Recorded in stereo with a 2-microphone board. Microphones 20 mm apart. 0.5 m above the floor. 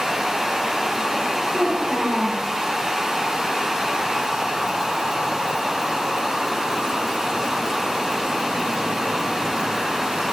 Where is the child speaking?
60° right (ahead or behind), 7 m.